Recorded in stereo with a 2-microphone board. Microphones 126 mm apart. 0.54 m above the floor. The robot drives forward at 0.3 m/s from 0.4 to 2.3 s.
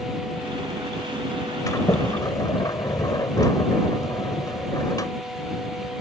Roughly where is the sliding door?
Left.